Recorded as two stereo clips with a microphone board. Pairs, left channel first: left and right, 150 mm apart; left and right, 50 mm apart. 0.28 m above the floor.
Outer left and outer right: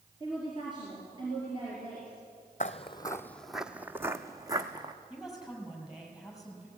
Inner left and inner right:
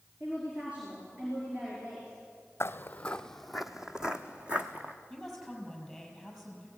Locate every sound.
0.2 s a woman speaking: 30° right (ahead or behind), 5 m
2.6 s footsteps: 55° left (ahead or behind), 0.7 m; by 4.9 s 25° right (ahead or behind), 1.8 m
5.1 s a woman speaking: 5° right (ahead or behind), 6 m